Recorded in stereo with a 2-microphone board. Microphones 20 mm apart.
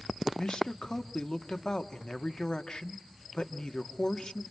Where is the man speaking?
50° left (ahead or behind), 1.6 m.